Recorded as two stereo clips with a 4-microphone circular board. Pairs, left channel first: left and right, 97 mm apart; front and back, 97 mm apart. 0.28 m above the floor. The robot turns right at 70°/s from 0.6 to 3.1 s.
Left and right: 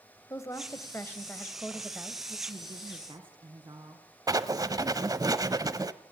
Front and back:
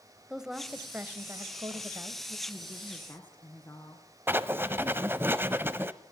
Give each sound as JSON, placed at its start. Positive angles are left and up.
{"t": 0.3, "sound": "a woman speaking", "azimuth_deg": 100, "distance_m": 1.4}
{"t": 2.5, "sound": "a woman speaking", "azimuth_deg": -95, "distance_m": 3.0}
{"t": 4.3, "sound": "writing", "azimuth_deg": -120, "distance_m": 0.8}